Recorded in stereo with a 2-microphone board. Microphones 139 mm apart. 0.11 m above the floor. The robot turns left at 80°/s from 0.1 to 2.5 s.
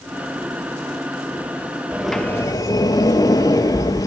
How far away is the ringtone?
I don't hear a ringtone.